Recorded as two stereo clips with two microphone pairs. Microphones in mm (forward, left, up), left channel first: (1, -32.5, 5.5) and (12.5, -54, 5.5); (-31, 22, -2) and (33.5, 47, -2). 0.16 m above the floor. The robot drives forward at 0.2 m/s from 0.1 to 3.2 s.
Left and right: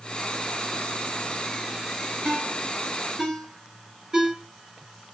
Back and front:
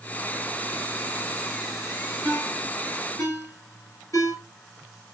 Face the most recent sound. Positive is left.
turn(degrees=-125)